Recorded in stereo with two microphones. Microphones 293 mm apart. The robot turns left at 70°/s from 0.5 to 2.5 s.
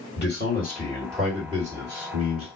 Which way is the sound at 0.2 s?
50° left.